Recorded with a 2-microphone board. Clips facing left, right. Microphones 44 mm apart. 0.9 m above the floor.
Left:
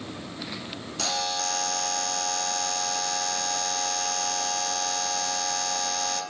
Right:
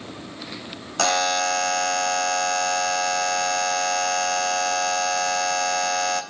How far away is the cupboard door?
No cupboard door in this recording.